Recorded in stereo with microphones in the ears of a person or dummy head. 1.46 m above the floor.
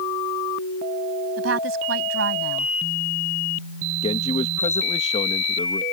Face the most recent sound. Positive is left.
turn(degrees=40)  # may be behind; listen again after turning